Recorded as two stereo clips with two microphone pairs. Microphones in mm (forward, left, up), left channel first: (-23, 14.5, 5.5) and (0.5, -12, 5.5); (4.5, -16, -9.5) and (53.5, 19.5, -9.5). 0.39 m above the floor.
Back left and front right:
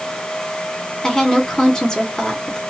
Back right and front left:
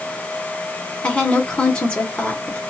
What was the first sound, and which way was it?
A woman speaking, 170° left.